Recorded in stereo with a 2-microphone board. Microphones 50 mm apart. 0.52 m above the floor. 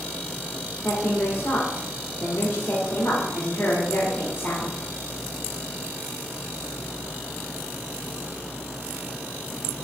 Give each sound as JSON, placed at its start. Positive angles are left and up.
{"t": 0.8, "sound": "a woman speaking", "side_deg": 50, "distance_m": 1.6}